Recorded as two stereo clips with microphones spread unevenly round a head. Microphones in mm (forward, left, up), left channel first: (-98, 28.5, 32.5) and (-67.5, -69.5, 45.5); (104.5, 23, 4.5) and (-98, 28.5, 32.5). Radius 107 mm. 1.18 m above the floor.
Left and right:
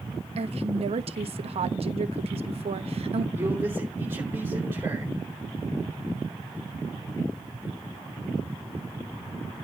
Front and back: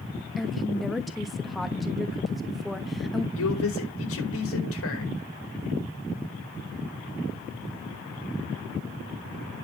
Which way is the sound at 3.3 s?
5° left.